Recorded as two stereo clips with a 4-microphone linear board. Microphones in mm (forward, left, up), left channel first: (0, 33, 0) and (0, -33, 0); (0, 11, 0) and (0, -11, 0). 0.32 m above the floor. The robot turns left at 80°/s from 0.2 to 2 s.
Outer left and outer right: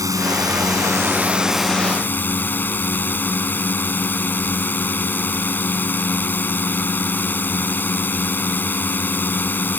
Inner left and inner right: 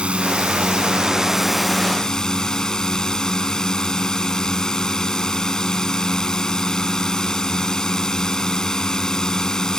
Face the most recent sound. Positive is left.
turn(degrees=145)